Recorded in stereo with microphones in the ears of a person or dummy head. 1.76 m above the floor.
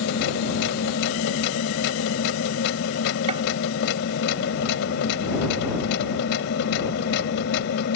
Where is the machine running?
75° left (ahead or behind).